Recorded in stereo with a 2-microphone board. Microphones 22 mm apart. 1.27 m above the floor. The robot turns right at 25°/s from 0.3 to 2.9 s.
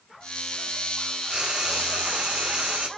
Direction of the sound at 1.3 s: 130° right.